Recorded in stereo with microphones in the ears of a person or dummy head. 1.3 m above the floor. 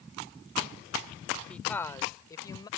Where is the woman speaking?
10° left (ahead or behind); by 2.7 s 25° left (ahead or behind).